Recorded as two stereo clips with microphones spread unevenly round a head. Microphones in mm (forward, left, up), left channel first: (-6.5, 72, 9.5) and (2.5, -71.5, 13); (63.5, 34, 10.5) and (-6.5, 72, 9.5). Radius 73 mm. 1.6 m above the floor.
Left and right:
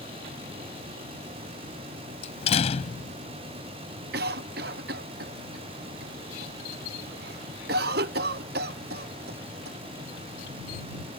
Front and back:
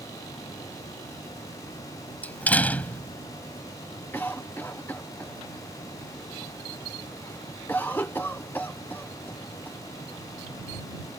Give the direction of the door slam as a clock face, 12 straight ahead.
11 o'clock.